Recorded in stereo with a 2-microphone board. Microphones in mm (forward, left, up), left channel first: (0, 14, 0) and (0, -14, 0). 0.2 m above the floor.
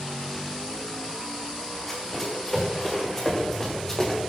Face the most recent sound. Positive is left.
turn(degrees=20)  # may be behind; listen again after turning